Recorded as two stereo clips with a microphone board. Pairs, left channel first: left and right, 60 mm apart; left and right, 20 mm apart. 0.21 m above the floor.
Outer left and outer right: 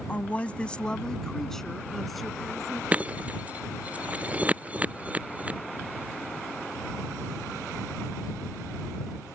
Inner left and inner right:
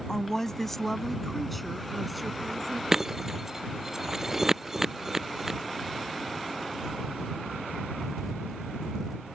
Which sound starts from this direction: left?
A woman speaking, at 0.1 s.